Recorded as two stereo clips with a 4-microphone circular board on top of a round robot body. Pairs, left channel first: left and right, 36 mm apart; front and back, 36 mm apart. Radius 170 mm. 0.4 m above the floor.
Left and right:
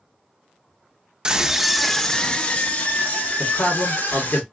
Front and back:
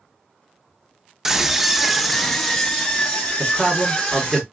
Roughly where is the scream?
Behind right.